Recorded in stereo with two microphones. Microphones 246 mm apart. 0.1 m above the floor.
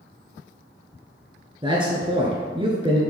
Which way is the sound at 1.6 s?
20° right (ahead or behind).